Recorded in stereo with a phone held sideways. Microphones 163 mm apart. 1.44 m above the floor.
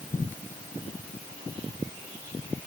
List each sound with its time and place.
Only background noise.